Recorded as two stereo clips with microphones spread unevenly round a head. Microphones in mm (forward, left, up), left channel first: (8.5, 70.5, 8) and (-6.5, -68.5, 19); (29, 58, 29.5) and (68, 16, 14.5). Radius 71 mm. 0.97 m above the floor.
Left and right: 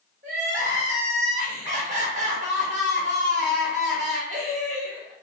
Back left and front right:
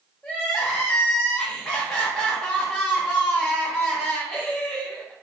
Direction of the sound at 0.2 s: 140° right.